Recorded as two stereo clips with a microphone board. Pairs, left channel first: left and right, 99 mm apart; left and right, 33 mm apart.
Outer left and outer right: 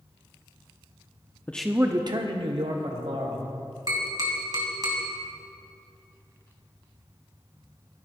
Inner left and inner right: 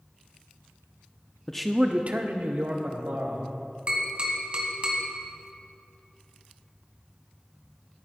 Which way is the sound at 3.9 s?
40° right (ahead or behind).